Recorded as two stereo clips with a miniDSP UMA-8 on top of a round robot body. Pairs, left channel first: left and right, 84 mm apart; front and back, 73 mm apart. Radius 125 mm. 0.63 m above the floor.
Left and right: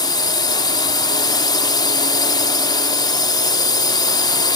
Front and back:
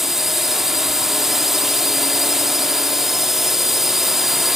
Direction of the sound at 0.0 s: 95° left.